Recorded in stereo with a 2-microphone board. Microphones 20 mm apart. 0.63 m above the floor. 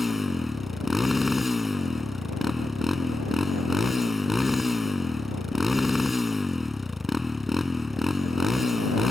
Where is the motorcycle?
15° right (ahead or behind).